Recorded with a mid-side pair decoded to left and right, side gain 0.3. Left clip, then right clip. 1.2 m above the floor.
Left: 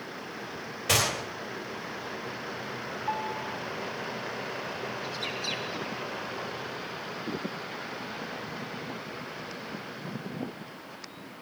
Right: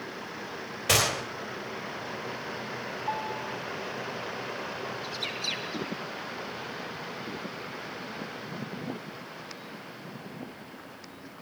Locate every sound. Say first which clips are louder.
0.9 s a gunshot: right 1 dB; 30° right, 4 m
3.1 s a piano: left 1 dB; 5° right, 4.5 m
5.0 s a bird: right 1 dB; 45° right, 7.5 m